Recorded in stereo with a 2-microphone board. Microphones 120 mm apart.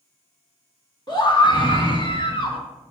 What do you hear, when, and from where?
1.1 s a scream: 40° left (ahead or behind), 2.5 m; by 2.6 s 55° left (ahead or behind), 3 m